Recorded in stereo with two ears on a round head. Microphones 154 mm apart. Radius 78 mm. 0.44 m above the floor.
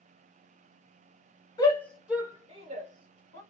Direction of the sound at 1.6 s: 25° left (ahead or behind).